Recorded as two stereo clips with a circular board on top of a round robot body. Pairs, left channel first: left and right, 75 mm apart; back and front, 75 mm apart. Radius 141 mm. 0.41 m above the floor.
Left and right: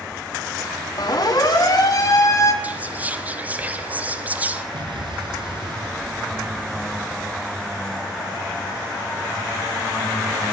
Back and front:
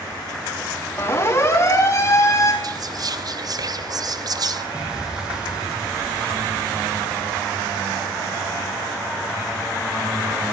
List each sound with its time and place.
1.0 s a siren: 125° left, 5 m; by 2.5 s 135° left, 4 m
2.6 s whispering: 25° right, 3 m
4.7 s an explosion: 80° right, 6.5 m